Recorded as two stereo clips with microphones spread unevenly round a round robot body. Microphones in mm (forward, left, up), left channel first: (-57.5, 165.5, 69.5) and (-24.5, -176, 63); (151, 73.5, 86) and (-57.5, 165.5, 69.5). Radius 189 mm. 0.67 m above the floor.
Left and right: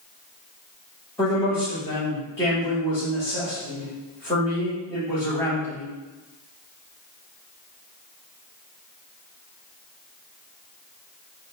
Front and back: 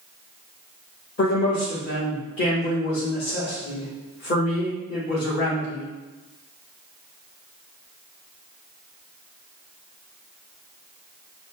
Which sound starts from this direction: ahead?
A man speaking, at 1.2 s.